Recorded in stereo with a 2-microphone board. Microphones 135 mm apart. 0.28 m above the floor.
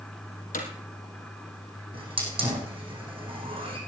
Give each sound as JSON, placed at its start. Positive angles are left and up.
{"t": 0.5, "sound": "hammering", "side_deg": 85, "distance_m": 3.0}
{"t": 1.9, "sound": "a hiss", "side_deg": -40, "distance_m": 4.0}